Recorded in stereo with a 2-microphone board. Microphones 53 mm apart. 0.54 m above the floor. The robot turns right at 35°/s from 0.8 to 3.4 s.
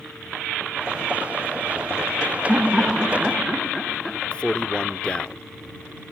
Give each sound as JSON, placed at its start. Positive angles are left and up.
{"t": 2.5, "sound": "laughter", "side_deg": -10}
{"t": 4.3, "sound": "a man speaking", "side_deg": 20}